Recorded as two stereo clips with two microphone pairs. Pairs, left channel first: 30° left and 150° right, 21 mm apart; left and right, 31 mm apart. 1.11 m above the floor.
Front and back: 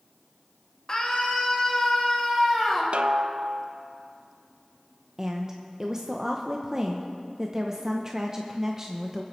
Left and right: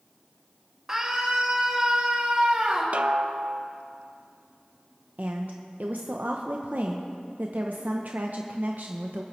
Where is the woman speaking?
95° right, 0.7 m.